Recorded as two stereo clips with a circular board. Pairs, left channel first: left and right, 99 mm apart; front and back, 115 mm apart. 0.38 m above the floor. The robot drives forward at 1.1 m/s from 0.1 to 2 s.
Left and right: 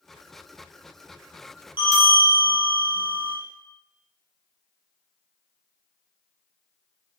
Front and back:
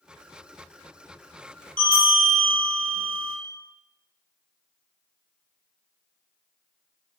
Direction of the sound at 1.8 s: 165° right.